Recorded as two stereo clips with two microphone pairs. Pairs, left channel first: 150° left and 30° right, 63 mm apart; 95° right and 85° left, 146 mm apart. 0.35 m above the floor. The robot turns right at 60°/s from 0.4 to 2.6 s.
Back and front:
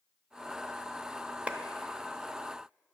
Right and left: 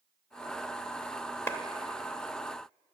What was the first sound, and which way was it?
A clap, 45° right.